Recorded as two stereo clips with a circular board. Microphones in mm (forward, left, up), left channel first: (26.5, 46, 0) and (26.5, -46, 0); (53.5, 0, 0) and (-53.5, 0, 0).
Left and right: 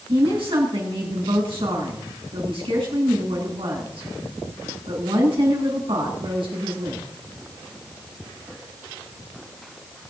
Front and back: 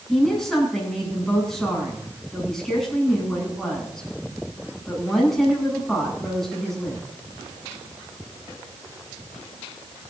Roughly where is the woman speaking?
Right.